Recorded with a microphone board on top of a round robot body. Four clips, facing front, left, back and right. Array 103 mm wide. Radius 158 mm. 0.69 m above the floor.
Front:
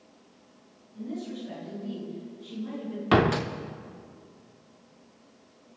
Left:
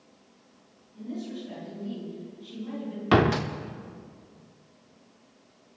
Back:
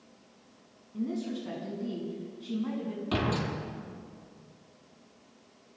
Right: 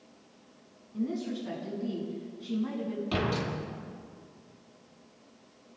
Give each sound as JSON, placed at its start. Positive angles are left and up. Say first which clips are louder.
{"t": 0.9, "sound": "a woman speaking", "louder": "right 4 dB, back 3 dB", "azimuth_deg": -130, "distance_m": 7.0}
{"t": 3.1, "sound": "a door slam", "louder": "left 11 dB, front 9 dB", "azimuth_deg": 50, "distance_m": 1.1}